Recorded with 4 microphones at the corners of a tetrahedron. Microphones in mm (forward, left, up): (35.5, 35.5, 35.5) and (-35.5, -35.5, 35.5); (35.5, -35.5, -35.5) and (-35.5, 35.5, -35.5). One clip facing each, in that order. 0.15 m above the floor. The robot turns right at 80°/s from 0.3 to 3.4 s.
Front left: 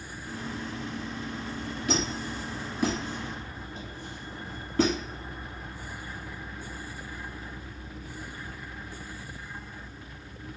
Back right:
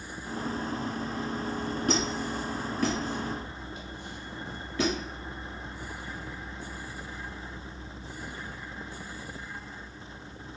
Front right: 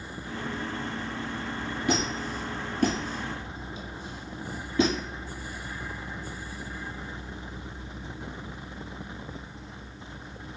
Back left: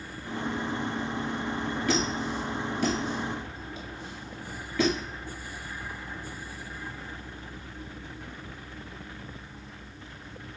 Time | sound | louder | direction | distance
1.9 | a squeak | even, front right 1 dB | 110° right | 1.4 m